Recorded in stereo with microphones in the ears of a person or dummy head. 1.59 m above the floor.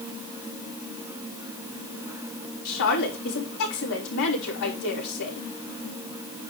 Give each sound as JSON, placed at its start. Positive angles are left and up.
{"t": 2.6, "sound": "a woman speaking", "side_deg": 75, "distance_m": 4.5}